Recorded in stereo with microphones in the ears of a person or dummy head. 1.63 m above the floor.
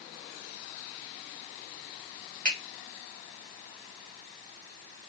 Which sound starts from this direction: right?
A finger snap, at 2.5 s.